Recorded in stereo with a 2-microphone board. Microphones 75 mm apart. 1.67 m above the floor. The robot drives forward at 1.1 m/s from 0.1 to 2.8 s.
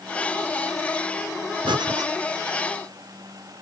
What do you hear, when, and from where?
1.6 s breathing: 85° right, 0.8 m; by 2.1 s 55° right (ahead or behind), 0.9 m